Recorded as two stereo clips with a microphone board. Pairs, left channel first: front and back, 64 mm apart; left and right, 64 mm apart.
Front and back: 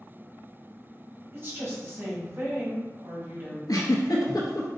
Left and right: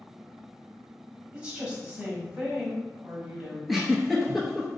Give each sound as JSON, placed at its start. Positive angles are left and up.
{"t": 1.3, "sound": "a woman speaking", "azimuth_deg": -155, "distance_m": 1.6}
{"t": 3.7, "sound": "a giggle", "azimuth_deg": -5, "distance_m": 0.9}